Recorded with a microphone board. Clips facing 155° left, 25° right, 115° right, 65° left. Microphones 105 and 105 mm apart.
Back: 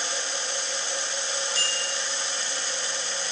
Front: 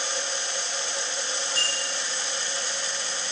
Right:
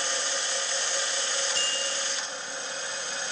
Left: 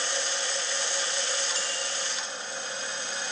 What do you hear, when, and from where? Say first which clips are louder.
1.6 s a bicycle bell: even, right 1 dB; 70° right, 6.5 m